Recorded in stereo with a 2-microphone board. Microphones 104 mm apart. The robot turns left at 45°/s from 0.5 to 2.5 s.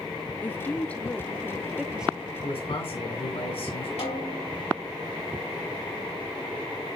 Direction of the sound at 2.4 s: 70° left (ahead or behind).